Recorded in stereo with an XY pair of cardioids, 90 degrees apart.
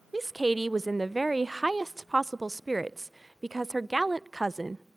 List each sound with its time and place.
0.1 s a woman speaking: 15° right, 0.7 m